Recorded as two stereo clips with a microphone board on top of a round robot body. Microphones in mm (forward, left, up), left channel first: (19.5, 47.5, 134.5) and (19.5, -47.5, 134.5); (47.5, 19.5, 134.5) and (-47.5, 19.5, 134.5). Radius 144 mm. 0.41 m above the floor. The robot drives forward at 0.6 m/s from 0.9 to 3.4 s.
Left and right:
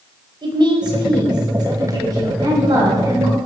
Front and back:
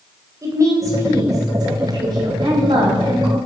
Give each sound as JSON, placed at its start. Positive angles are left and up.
{"t": 0.4, "sound": "a woman speaking", "azimuth_deg": -125, "distance_m": 3.0}